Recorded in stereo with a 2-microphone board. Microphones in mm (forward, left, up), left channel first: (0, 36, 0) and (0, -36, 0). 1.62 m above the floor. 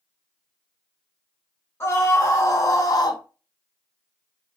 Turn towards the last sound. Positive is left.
turn(degrees=60)  # may be behind; listen again after turning